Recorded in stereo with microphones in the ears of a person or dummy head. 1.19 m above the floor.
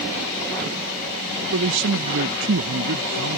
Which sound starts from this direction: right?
A man speaking, at 1.5 s.